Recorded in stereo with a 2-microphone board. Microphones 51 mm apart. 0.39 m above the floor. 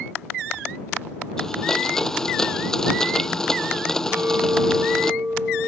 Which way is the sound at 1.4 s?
10° left (ahead or behind).